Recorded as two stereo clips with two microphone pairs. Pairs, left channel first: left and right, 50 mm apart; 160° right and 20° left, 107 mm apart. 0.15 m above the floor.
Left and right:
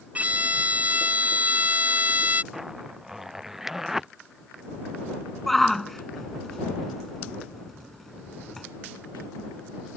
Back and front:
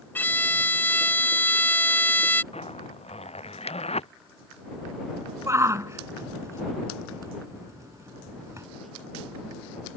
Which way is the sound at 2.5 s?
175° right.